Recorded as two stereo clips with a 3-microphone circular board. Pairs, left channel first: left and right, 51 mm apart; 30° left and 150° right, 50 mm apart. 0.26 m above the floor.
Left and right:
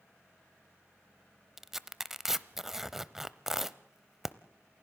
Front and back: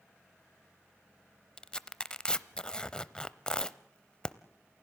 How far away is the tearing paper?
About 0.7 m.